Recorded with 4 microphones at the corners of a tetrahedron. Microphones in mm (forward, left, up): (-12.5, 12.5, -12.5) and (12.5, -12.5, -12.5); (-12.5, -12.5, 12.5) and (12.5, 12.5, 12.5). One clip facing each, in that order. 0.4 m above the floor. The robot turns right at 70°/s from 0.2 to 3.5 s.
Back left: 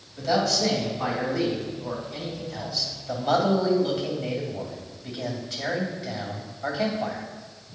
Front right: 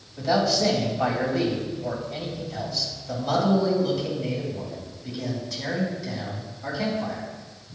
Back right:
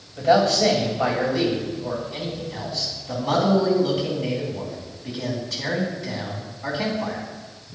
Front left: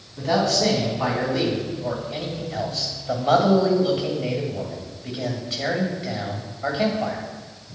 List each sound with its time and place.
0.2 s a man speaking: 145° right, 2.5 m; by 7.2 s 85° left, 2.5 m